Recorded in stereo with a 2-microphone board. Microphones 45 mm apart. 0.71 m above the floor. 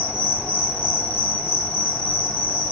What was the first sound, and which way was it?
An insect, 60° right (ahead or behind).